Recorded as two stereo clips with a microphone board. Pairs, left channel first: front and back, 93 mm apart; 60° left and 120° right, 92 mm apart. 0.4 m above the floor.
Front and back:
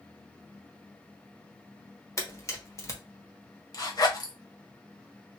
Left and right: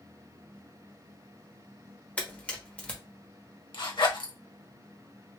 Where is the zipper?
40° left, 0.9 m.